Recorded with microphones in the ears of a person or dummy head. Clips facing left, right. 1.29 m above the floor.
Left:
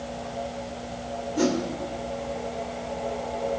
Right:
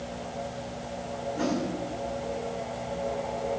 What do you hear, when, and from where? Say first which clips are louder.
1.4 s a whoosh: left 5 dB; 60° left (ahead or behind), 3 m